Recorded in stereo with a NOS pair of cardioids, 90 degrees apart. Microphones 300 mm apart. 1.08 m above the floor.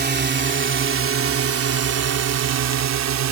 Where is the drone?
35° right; by 3.3 s 65° right.